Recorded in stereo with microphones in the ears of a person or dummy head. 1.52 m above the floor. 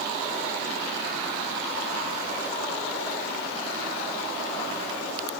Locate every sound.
Only background noise.